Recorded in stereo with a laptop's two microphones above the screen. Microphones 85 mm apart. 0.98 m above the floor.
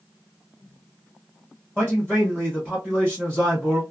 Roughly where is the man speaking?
Centre.